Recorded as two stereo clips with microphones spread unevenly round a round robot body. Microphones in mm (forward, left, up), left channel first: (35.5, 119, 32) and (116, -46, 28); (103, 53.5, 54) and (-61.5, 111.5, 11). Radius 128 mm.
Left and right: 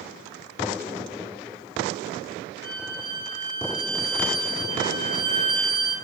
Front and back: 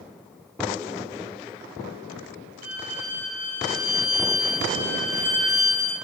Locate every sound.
2.6 s a violin: 165° right, 5.5 m